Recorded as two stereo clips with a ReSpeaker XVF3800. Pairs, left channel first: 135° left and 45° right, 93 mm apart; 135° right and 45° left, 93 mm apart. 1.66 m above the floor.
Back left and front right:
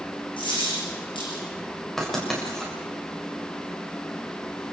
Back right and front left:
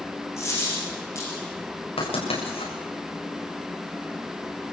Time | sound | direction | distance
0.4 | a dropped coin | 165° left | 10 m
2.0 | writing | 140° right | 7.5 m